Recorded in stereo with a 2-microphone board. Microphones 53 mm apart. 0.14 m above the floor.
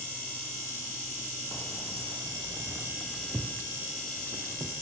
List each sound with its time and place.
1.5 s keys jangling: 5° right (ahead or behind), 4 m; by 4.7 s 50° right (ahead or behind), 5 m